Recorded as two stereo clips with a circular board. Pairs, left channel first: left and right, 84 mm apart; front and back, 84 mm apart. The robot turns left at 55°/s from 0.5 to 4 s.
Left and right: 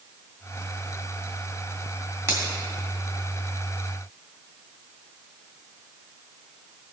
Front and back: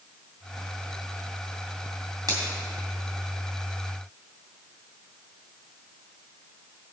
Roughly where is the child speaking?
I don't hear a child speaking.